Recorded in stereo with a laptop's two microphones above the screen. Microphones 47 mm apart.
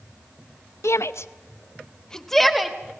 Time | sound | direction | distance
0.8 | a shout | 85° left | 0.8 m